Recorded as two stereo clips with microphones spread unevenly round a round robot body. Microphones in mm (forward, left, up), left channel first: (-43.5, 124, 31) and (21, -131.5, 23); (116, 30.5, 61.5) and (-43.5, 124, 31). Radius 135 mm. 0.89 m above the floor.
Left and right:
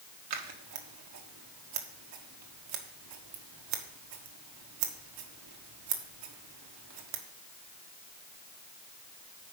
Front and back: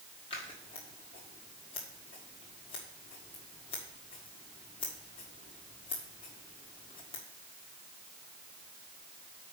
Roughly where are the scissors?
Right.